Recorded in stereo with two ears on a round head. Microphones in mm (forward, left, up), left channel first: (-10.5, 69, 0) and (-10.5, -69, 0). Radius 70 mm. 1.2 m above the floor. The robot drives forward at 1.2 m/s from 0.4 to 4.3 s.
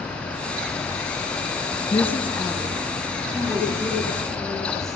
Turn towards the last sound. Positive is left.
turn(degrees=5)  # may be behind; listen again after turning